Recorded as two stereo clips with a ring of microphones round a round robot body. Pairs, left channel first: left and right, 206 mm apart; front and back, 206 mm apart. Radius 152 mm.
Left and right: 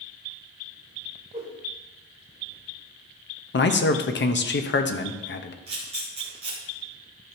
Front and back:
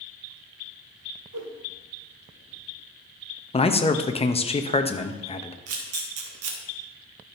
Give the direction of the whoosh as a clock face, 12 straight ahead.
5 o'clock.